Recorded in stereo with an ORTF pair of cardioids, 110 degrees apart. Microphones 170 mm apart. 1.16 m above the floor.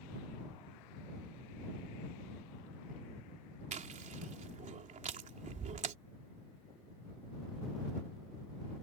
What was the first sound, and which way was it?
Chewing, 45° right.